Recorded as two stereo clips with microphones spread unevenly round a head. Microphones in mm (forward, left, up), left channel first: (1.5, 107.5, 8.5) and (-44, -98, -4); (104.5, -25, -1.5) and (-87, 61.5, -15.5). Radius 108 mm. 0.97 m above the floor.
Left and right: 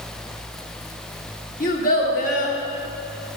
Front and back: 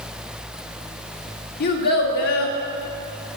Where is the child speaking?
20° left, 1.7 m.